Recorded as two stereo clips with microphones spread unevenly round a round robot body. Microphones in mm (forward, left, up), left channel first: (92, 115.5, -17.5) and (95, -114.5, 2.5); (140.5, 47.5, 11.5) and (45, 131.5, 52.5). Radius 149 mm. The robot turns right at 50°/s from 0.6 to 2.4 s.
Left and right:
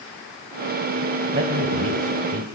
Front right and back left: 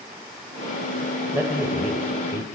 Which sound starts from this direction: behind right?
A man speaking, at 1.3 s.